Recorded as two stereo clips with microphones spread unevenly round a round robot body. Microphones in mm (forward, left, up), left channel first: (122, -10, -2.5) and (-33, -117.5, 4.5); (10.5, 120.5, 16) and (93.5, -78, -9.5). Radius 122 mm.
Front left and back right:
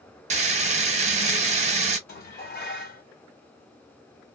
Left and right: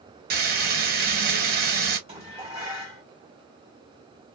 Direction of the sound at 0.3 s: 110° right.